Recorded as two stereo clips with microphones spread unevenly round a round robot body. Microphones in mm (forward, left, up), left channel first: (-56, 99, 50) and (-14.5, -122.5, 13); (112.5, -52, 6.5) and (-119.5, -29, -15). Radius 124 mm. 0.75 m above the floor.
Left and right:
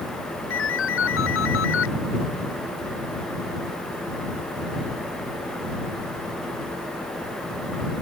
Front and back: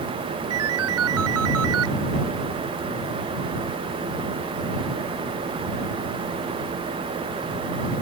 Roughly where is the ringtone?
Behind left.